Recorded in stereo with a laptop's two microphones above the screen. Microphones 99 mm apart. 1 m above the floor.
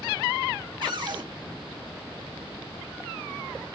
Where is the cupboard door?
60° right (ahead or behind), 3.5 m.